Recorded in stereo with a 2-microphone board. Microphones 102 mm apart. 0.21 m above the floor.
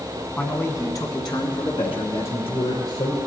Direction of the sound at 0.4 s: 15° left (ahead or behind).